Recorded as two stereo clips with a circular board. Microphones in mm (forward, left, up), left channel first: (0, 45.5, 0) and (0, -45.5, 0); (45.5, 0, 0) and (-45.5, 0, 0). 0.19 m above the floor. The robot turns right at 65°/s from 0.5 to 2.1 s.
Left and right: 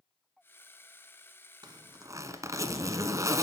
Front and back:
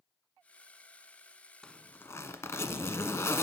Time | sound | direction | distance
1.6 | a zipper | 80° right | 1.1 m